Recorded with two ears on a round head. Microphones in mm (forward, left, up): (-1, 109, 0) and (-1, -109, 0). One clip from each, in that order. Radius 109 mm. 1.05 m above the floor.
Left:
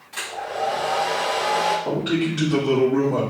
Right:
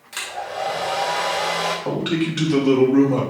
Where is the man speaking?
40° right (ahead or behind), 2 m.